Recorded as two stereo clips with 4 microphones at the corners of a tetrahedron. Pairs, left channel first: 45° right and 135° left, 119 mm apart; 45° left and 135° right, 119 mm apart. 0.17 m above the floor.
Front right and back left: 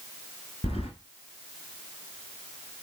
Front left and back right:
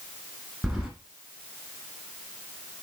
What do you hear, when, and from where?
0.6 s keys jangling: 50° right, 1.5 m